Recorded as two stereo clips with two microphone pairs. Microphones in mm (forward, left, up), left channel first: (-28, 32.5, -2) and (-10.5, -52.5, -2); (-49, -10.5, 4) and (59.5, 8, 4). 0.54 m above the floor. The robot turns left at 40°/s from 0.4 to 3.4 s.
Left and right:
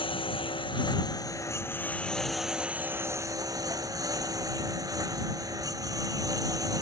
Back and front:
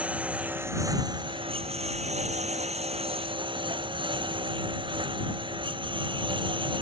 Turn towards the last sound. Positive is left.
turn(degrees=-30)